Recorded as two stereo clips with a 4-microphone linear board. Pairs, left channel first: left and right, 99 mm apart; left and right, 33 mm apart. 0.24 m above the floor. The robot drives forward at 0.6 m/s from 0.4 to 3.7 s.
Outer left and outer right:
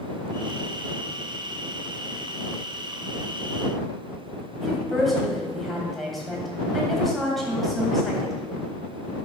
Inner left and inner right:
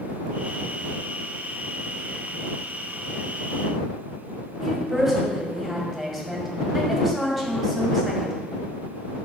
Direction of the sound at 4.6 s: Centre (ahead or behind).